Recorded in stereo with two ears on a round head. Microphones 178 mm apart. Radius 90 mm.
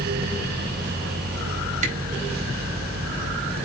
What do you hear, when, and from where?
1.8 s a camera shutter: 40° right (ahead or behind), 4 m